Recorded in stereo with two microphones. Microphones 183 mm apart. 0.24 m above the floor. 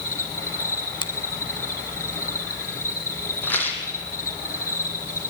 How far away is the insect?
About 4.5 m.